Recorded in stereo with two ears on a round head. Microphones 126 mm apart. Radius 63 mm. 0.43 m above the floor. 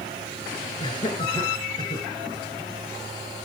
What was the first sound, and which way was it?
Laughter, 30° left (ahead or behind).